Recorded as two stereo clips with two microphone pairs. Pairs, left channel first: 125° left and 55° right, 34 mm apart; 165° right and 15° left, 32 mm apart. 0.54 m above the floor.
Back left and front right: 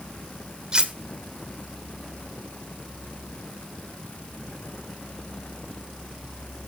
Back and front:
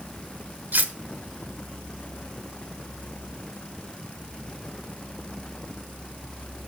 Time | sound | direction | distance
0.7 | cutlery clinking | 5° left | 1.1 m